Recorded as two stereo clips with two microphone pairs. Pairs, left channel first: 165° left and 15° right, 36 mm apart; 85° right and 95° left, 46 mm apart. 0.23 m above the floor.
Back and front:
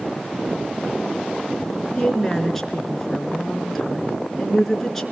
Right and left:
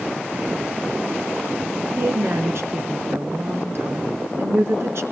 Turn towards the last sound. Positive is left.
turn(degrees=85)